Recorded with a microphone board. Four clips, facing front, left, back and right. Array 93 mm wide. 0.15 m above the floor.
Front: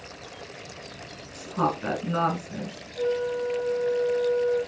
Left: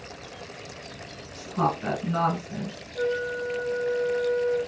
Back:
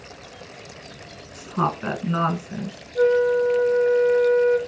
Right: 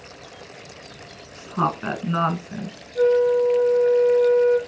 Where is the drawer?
I don't hear a drawer.